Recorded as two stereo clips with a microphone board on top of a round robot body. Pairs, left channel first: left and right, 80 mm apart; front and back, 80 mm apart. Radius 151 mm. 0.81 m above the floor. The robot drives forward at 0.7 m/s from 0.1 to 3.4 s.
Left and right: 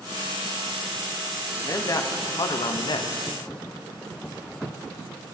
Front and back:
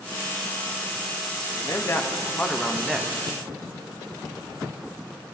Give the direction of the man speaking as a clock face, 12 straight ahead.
11 o'clock.